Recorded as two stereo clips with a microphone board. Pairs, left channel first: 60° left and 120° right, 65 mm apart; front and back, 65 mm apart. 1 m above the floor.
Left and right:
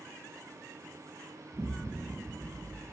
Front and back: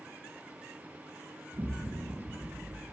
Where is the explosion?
175° right, 0.9 m.